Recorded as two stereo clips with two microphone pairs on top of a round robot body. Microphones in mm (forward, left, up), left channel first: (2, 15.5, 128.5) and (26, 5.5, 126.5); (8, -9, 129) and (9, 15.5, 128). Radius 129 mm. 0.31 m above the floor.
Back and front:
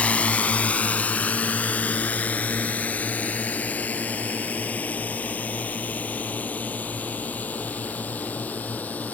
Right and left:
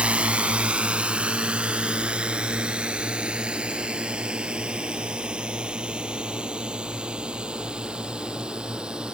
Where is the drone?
125° left; by 9.1 s 140° left.